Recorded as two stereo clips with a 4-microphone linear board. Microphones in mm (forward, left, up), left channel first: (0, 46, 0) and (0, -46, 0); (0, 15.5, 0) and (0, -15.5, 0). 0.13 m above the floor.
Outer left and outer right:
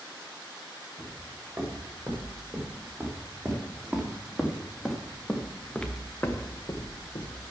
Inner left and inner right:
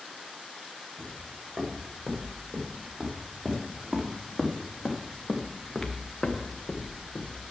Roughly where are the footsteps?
Right.